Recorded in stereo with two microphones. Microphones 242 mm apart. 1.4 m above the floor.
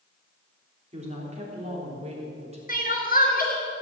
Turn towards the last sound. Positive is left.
turn(degrees=35)  # may be behind; listen again after turning